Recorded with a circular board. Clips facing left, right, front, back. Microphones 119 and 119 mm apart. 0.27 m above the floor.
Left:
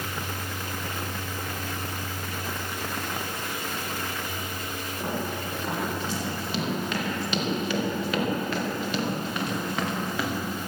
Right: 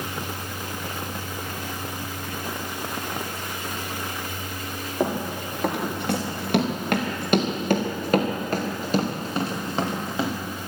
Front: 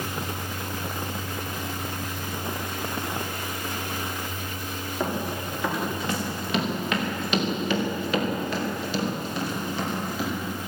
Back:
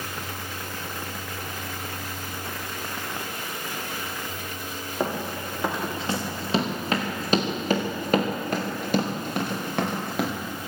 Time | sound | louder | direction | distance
5.0 | running footsteps | right 6 dB, back 1 dB | 110° right | 4 m